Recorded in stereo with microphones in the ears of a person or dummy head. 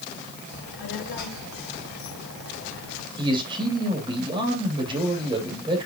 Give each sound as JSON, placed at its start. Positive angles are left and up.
{"t": 0.5, "sound": "a child speaking", "side_deg": 70, "distance_m": 5.0}
{"t": 3.2, "sound": "a man speaking", "side_deg": -30, "distance_m": 3.5}